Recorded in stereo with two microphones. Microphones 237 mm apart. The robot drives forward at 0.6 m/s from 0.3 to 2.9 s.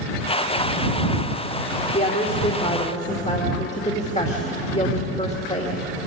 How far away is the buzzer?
No buzzer in this recording.